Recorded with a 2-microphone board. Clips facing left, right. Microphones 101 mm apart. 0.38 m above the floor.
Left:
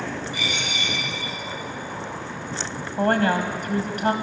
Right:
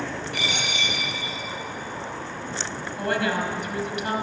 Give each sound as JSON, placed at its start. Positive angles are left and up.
{"t": 0.3, "sound": "a dropped coin", "side_deg": -65, "distance_m": 6.0}
{"t": 3.0, "sound": "a woman speaking", "side_deg": 45, "distance_m": 1.9}